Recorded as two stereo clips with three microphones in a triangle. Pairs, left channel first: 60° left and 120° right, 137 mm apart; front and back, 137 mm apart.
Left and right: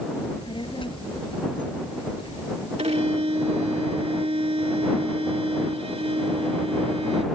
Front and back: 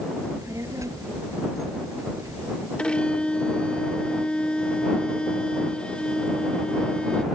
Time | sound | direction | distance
0.2 | a child speaking | 110° left | ?
2.8 | a violin | 80° right | ?